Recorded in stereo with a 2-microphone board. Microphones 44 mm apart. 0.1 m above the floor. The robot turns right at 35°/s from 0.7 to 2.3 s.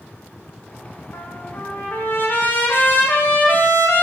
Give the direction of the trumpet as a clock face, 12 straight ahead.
9 o'clock.